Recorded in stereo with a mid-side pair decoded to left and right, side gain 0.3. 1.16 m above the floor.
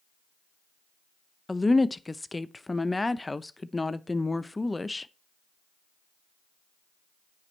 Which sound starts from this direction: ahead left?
A woman speaking, at 1.5 s.